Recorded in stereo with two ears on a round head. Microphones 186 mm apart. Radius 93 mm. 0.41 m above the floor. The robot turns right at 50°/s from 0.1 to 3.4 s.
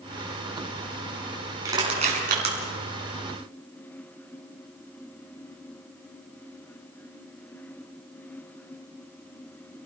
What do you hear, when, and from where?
1.6 s crushing: 15° right (ahead or behind), 5 m; by 2.5 s 60° right (ahead or behind), 5 m